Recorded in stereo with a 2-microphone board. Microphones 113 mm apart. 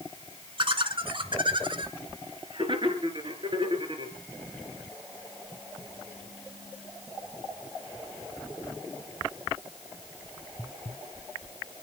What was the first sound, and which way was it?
Laughter, 45° right (ahead or behind).